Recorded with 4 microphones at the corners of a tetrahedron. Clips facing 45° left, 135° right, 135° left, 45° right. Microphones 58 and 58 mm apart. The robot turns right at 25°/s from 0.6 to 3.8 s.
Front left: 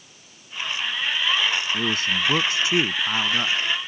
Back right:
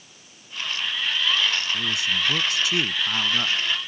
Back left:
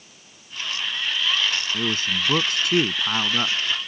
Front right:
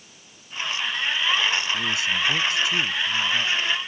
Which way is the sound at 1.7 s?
85° left.